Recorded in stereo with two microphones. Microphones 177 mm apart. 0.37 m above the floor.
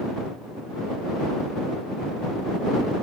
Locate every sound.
Only background noise.